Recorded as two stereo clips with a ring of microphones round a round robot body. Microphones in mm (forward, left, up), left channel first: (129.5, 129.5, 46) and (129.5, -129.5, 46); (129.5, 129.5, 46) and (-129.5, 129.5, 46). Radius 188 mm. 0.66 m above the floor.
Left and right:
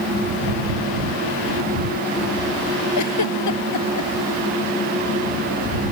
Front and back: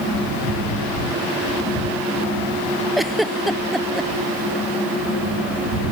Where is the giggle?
90° left.